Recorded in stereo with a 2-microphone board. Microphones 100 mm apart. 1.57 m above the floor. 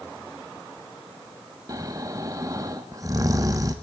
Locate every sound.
1.7 s snoring: 35° right (ahead or behind), 1.5 m